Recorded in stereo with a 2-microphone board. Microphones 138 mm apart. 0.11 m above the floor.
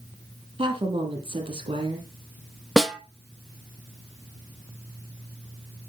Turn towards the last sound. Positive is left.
turn(degrees=0)  # may be behind; listen again after turning